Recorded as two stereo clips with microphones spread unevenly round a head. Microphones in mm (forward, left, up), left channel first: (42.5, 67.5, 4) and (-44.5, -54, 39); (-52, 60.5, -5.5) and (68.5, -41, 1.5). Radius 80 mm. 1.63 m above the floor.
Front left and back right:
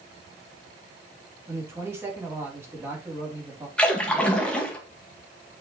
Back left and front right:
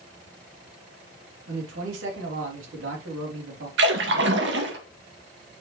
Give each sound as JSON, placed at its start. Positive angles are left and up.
{"t": 1.5, "sound": "a man speaking", "azimuth_deg": -50, "distance_m": 3.0}
{"t": 3.8, "sound": "a splash", "azimuth_deg": -30, "distance_m": 1.8}